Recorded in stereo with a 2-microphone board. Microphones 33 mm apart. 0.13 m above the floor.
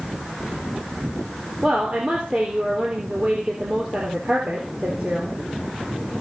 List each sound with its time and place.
1.6 s a woman speaking: 40° right (ahead or behind), 3.5 m